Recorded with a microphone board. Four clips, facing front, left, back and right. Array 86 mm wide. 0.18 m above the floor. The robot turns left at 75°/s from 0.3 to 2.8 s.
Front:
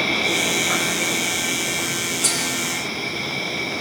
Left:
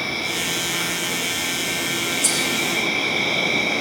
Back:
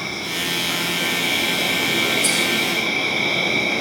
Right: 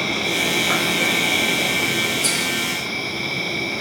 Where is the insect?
40° right, 10 m; by 3.8 s 130° left, 10 m.